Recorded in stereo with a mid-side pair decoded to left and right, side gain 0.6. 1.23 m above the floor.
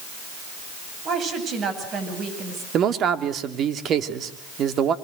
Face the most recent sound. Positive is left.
turn(degrees=-50)